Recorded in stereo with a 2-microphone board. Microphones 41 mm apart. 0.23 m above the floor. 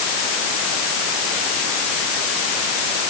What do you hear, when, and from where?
Only background noise.